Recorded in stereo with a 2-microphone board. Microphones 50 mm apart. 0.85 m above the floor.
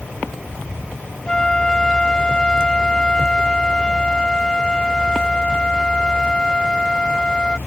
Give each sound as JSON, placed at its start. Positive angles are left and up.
{"t": 1.3, "sound": "a flute", "side_deg": 15}